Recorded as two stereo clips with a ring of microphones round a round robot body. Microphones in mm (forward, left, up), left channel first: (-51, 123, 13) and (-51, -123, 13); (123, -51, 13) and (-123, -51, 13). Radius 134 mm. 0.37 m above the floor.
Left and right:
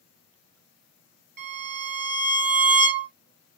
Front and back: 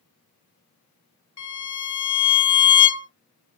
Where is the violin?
25° right, 1.3 m.